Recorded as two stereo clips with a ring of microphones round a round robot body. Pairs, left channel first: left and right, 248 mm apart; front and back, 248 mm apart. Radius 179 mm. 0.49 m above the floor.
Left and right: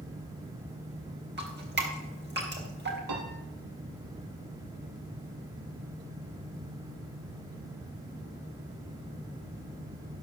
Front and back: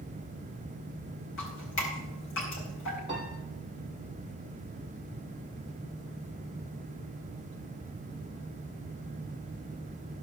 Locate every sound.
1.4 s dripping: 45° right, 4 m
3.1 s a piano: 105° right, 3 m